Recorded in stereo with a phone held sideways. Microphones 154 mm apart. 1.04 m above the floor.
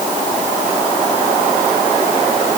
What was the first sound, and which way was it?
Only background noise.